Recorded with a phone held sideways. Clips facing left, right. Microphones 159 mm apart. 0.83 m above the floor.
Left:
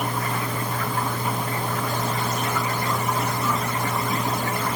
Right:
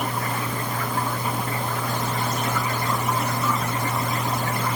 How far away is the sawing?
No sawing in this recording.